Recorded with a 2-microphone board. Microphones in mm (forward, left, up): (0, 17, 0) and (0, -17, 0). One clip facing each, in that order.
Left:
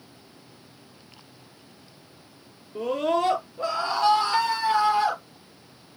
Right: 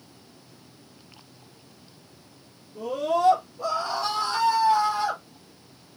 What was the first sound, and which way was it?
A scream, 55° left (ahead or behind).